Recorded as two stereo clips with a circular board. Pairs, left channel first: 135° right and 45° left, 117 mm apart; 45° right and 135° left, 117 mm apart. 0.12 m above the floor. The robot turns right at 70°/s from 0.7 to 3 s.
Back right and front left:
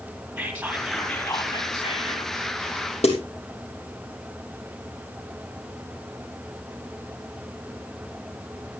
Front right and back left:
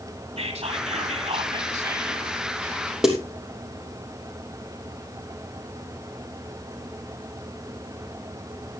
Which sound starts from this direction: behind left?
Whispering, at 0.4 s.